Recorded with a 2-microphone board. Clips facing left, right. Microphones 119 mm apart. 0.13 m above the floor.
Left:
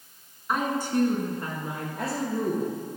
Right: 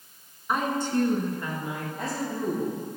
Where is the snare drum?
No snare drum in this recording.